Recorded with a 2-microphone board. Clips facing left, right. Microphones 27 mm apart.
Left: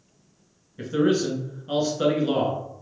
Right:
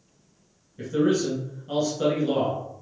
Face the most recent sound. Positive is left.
turn(degrees=25)  # may be behind; listen again after turning